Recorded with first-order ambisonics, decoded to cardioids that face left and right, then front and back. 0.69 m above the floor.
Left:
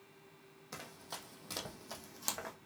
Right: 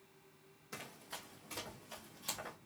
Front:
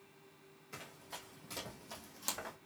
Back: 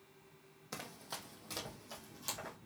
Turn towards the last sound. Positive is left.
turn(degrees=65)